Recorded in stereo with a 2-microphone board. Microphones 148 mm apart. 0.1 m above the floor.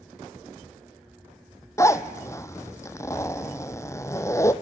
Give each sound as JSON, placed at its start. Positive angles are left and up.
{"t": 1.8, "sound": "a zipper", "side_deg": 20, "distance_m": 0.6}